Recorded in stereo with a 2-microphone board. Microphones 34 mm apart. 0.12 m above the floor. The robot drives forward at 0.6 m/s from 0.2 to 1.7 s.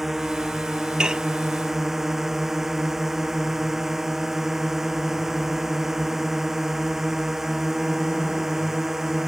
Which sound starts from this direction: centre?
A drone, at 0.0 s.